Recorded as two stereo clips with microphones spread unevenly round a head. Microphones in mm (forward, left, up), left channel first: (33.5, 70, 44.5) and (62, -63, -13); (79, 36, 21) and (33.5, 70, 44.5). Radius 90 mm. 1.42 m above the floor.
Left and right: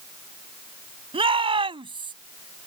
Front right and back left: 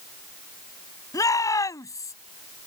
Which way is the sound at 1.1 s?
30° right.